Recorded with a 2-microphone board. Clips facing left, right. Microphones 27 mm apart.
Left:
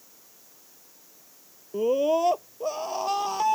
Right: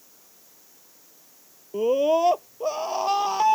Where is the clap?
No clap in this recording.